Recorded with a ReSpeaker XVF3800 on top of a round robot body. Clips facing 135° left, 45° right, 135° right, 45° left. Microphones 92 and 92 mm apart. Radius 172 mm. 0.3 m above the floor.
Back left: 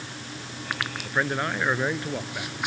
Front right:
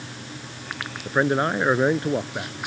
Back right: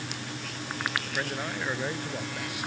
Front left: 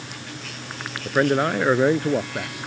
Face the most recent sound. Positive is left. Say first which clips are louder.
# front right 6 dB, front left 13 dB
turn(degrees=10)